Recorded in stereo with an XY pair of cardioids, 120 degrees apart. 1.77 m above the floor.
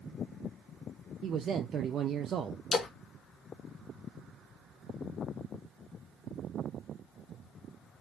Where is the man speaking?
50° right, 0.5 m.